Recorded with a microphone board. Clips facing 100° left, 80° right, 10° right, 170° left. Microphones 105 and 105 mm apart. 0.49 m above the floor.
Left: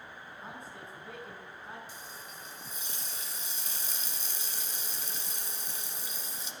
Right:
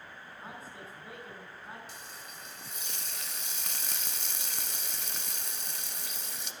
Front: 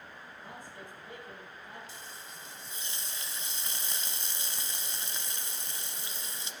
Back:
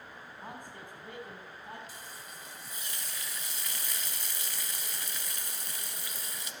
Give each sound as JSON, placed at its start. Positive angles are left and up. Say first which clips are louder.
{"t": 0.4, "sound": "a man speaking", "louder": "even, back 2 dB", "azimuth_deg": -170, "distance_m": 4.5}
{"t": 1.9, "sound": "frying", "louder": "left 1 dB, even", "azimuth_deg": -75, "distance_m": 0.9}